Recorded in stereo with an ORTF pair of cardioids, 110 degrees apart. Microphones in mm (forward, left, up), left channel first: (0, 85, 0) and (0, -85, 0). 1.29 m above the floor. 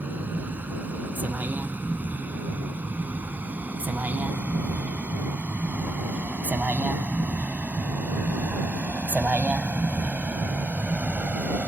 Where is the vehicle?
10° right.